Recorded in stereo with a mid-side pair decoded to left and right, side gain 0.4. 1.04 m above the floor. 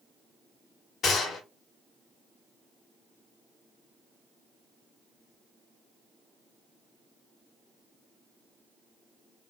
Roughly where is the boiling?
I don't hear boiling.